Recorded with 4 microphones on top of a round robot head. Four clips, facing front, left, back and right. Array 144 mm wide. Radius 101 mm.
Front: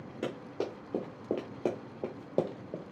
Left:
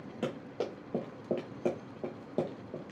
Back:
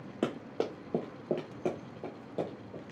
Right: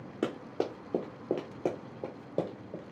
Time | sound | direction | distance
0.2 | running footsteps | 145° right | 1.1 m